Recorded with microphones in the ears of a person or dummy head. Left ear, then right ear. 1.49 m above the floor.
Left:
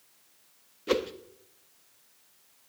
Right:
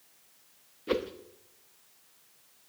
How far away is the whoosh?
About 1.1 m.